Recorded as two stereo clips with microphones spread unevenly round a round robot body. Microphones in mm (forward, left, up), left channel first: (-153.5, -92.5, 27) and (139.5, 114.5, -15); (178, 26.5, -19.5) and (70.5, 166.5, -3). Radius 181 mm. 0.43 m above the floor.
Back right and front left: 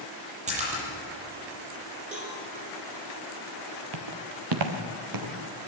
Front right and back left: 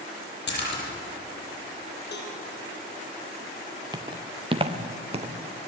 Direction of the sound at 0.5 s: 35° right.